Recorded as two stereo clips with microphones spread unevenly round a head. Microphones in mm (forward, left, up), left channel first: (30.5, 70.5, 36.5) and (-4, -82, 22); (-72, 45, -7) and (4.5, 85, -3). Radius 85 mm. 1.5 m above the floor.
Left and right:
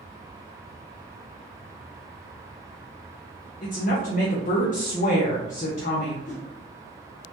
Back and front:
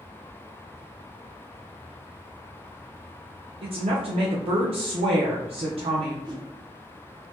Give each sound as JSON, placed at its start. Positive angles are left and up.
{"t": 3.6, "sound": "a woman speaking", "azimuth_deg": 35, "distance_m": 0.6}
{"t": 6.2, "sound": "a whoosh", "azimuth_deg": 55, "distance_m": 0.8}